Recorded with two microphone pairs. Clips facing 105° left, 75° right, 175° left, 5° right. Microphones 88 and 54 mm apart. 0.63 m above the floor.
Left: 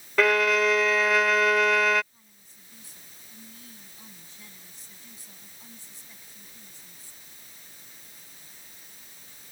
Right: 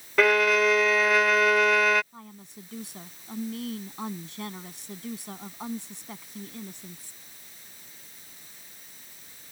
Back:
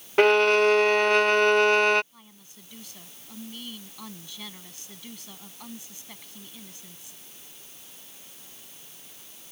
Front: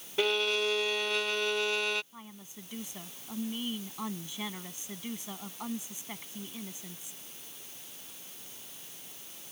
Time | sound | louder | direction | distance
0.2 | a violin | right 1 dB, back 11 dB | 165° right | ?
2.1 | a woman speaking | right 16 dB, front 5 dB | 75° right | ?